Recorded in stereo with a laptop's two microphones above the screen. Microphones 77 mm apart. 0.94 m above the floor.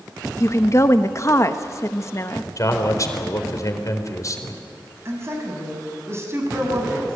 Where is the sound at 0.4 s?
40° left (ahead or behind), 1.1 m.